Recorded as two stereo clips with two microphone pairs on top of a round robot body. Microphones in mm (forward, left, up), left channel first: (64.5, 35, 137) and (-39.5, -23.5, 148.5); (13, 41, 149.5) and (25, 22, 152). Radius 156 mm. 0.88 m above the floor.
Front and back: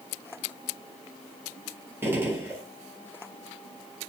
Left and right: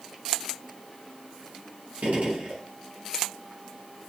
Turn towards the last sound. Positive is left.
turn(degrees=-80)